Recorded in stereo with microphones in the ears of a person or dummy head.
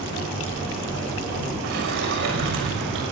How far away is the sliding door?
About 6.5 m.